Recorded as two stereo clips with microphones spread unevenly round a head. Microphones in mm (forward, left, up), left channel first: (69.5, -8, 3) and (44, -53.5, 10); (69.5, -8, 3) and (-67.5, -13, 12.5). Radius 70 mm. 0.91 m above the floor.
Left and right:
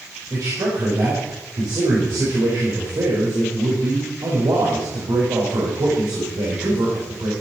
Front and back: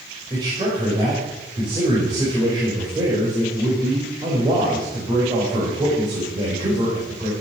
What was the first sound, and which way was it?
A man speaking, 120° right.